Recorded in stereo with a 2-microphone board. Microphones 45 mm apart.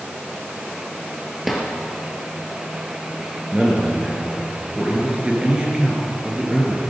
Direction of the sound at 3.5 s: 20° right (ahead or behind).